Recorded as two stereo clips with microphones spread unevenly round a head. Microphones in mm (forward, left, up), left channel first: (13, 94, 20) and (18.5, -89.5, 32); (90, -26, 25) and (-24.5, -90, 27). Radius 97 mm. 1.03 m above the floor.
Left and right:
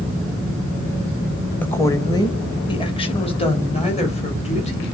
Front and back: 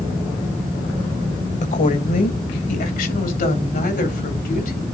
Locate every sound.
1.6 s a woman speaking: 15° left, 1.3 m; by 4.8 s 35° left, 5 m